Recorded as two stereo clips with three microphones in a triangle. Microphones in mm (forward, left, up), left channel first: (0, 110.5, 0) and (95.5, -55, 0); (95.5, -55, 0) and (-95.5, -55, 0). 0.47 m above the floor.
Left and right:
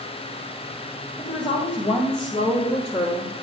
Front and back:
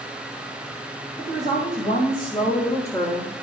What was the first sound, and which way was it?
A woman speaking, 50° left.